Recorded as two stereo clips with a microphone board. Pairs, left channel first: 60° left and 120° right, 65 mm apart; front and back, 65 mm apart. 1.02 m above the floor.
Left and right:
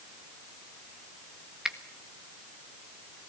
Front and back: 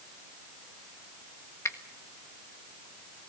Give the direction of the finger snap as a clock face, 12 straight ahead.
1 o'clock.